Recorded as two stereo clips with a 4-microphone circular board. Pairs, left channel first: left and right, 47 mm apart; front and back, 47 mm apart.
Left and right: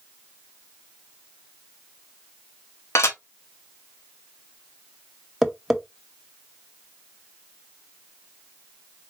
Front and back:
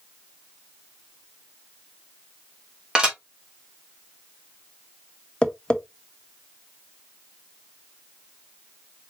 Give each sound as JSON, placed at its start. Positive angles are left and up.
{"t": 3.0, "sound": "dishes clattering", "azimuth_deg": 105, "distance_m": 1.3}
{"t": 5.4, "sound": "tapping", "azimuth_deg": 0, "distance_m": 0.8}